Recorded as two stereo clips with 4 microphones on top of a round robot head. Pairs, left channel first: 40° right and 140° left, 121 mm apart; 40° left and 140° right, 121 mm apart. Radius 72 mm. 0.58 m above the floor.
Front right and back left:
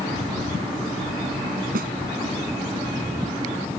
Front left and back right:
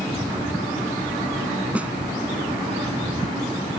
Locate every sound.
1.8 s a snare drum: 140° left